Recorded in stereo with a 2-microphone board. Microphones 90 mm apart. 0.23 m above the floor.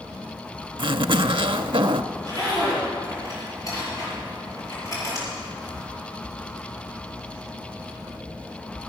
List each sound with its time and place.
0.8 s a zipper: 80° right, 0.5 m
2.1 s a zipper: 40° left (ahead or behind), 5.5 m